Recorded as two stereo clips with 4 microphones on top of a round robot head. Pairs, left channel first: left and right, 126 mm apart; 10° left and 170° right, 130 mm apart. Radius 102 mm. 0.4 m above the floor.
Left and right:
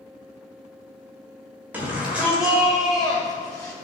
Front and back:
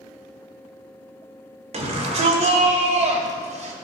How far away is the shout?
About 2.0 m.